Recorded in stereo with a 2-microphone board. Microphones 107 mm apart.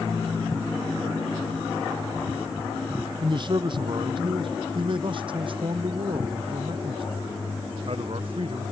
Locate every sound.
3.2 s a man speaking: 45° right (ahead or behind); by 8.7 s 55° right (ahead or behind)